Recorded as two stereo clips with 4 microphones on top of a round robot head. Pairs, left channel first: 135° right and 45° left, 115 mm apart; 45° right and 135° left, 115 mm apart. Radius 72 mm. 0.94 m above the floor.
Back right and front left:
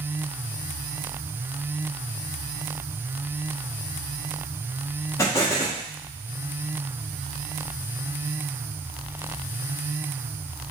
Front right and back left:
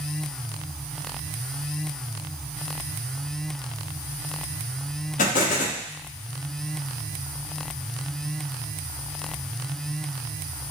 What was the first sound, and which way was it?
An explosion, 65° right.